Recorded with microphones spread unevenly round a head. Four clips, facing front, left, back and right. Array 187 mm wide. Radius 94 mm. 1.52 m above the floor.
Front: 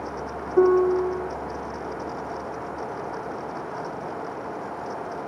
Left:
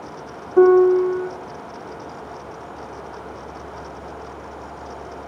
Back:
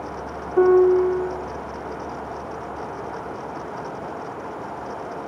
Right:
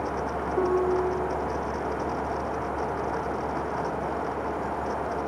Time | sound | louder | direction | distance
0.6 | a piano | left 12 dB, back 4 dB | 85° left | 1.7 m